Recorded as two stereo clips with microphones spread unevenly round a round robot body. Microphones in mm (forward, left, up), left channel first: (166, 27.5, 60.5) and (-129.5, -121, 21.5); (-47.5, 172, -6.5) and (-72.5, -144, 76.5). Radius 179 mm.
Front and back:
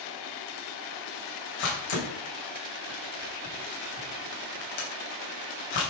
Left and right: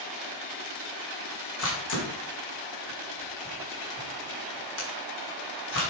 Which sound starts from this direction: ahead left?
A camera shutter, at 1.6 s.